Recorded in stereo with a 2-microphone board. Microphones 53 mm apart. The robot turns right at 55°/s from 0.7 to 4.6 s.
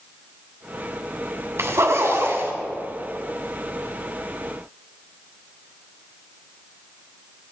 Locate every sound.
1.6 s a zipper: 100° right, 2.5 m; by 2.5 s 50° right, 2.5 m